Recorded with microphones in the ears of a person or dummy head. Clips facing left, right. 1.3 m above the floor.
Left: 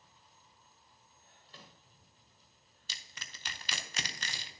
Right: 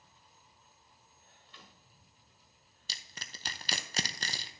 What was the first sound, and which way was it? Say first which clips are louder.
A microwave: left 2 dB; 30° left (ahead or behind).